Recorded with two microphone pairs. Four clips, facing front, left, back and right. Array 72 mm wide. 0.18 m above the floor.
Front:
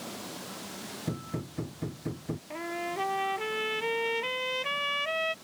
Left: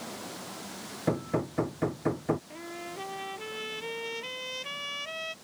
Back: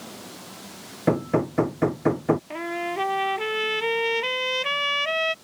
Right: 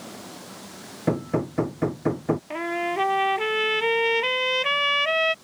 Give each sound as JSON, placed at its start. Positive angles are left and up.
{"t": 1.1, "sound": "hammering", "azimuth_deg": -170}
{"t": 2.5, "sound": "a trumpet", "azimuth_deg": -105}